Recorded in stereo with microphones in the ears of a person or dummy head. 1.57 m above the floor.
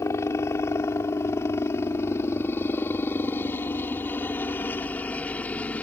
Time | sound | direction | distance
0.0 | a helicopter | 15° left (ahead or behind) | ?